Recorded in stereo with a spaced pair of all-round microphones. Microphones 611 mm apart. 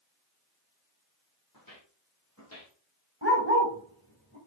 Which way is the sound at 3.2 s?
20° left (ahead or behind).